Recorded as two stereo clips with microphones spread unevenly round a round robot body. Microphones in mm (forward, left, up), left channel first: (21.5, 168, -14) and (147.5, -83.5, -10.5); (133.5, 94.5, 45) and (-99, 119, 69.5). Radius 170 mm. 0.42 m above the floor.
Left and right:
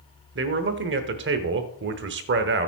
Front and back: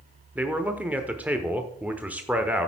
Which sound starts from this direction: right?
A man speaking, at 0.3 s.